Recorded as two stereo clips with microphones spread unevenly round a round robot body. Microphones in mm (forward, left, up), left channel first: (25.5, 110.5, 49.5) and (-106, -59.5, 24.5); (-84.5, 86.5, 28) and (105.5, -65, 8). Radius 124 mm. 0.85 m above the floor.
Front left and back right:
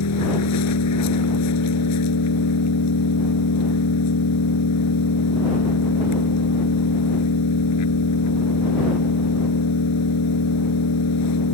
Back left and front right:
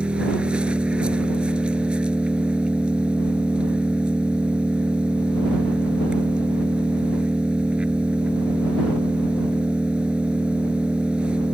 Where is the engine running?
50° left.